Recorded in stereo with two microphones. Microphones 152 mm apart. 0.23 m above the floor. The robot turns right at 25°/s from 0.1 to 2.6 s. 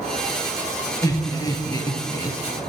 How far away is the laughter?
About 1.0 m.